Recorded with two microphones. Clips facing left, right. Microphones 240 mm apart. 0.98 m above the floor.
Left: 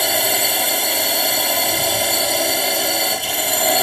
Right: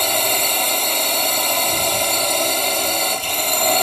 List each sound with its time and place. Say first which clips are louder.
0.0 s a drone: left 1 dB; 10° left (ahead or behind)